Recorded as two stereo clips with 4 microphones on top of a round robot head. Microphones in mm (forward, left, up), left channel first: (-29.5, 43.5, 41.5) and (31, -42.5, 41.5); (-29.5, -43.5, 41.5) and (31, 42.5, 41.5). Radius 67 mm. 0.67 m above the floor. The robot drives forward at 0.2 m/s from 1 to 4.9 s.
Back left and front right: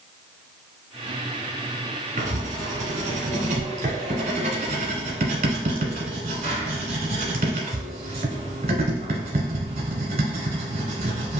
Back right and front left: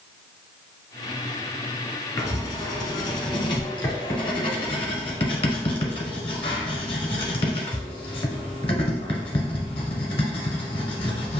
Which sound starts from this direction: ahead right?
Writing, at 2.2 s.